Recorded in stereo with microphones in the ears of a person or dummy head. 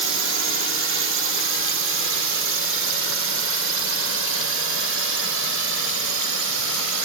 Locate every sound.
0.0 s a drone: 65° right (ahead or behind); by 7.0 s 70° right (ahead or behind)